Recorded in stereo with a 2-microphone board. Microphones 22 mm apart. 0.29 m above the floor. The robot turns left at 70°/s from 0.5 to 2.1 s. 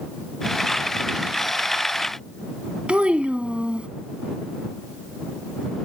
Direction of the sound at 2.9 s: 70° right (ahead or behind).